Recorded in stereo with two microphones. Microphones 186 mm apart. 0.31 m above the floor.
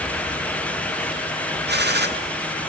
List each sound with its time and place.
1.7 s a gunshot: 70° right (ahead or behind), 2.5 m